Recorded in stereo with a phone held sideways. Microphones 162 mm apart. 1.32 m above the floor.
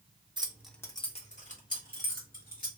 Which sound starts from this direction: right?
Keys jangling, at 0.4 s.